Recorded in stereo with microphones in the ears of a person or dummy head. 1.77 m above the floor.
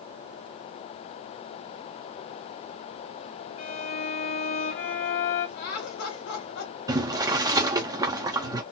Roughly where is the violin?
Left.